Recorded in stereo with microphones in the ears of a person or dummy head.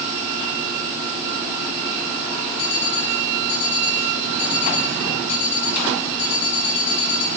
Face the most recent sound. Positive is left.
turn(degrees=60)  # may be behind; listen again after turning